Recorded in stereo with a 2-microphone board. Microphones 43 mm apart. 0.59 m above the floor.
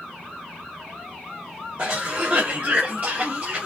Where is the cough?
50° right (ahead or behind), 0.9 m.